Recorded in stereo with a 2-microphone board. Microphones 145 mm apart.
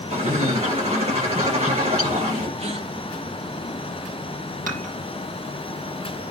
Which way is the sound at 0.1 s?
45° right (ahead or behind).